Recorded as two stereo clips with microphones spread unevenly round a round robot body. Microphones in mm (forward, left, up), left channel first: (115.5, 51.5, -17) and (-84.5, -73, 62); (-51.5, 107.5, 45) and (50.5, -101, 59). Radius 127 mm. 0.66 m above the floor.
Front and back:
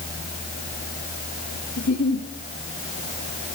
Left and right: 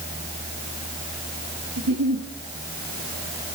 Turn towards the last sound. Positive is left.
turn(degrees=-25)